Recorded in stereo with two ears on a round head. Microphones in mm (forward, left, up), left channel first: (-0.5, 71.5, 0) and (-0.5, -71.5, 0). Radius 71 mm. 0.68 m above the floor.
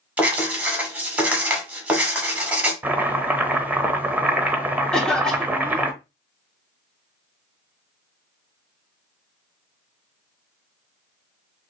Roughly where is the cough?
Centre.